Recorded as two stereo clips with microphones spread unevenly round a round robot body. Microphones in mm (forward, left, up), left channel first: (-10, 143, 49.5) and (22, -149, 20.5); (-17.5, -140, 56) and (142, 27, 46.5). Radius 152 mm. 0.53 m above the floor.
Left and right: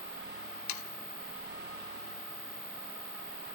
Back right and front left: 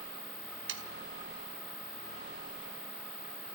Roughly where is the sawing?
Left.